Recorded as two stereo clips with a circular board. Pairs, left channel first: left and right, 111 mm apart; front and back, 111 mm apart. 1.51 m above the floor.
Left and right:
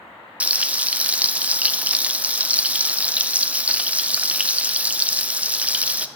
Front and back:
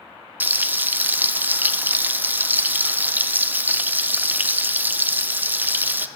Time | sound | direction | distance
0.4 | frying | 145° right | 0.5 m